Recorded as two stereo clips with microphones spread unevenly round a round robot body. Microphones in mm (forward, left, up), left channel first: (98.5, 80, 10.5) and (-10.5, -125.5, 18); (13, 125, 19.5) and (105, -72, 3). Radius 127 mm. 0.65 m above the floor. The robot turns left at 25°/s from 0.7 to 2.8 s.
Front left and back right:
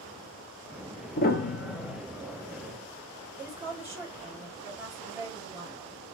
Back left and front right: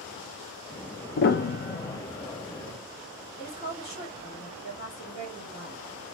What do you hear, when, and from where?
1.2 s a piano: 100° left, 0.5 m; by 2.0 s 75° left, 0.5 m
3.4 s a woman speaking: 160° left, 1.9 m